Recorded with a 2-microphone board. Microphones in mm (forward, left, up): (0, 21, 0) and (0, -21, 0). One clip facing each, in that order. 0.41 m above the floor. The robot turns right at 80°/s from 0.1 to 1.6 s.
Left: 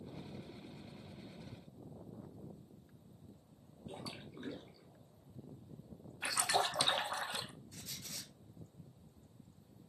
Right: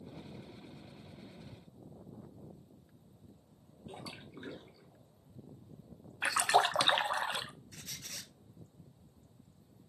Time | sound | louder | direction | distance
3.9 | a splash | right 1 dB | 20° right (ahead or behind) | 1.7 m
6.2 | a splash | right 7 dB | 55° right (ahead or behind) | 0.5 m
7.7 | a squeak | right 2 dB | 70° right (ahead or behind) | 0.8 m